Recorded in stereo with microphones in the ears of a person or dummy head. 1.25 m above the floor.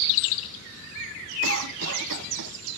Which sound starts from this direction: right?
A cough, at 1.4 s.